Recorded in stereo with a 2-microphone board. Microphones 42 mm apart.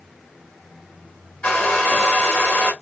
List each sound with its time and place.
1.4 s a hair dryer: 25° left (ahead or behind), 2.0 m